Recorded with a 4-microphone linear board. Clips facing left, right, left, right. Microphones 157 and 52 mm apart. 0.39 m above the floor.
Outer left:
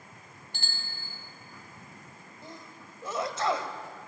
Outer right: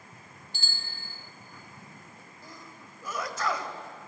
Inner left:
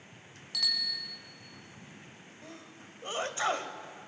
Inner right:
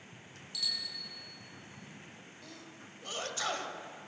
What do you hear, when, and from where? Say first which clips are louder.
0.5 s a bicycle bell: outer left 2 dB, inner left 6 dB; 60° left (ahead or behind), 2.5 m
2.4 s a sneeze: outer left 3 dB, inner left 3 dB; 25° left (ahead or behind), 1.7 m